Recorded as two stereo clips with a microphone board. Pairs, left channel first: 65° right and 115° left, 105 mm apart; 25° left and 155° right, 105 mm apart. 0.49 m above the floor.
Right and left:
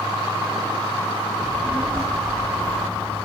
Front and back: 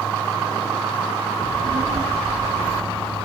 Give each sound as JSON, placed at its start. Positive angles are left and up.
{"t": 1.4, "sound": "a child speaking", "azimuth_deg": -150, "distance_m": 4.0}